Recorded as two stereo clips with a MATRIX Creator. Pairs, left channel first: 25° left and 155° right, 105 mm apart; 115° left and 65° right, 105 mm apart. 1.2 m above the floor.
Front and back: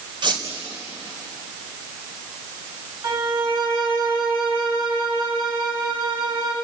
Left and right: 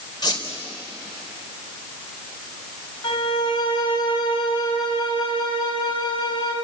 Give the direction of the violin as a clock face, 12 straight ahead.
7 o'clock.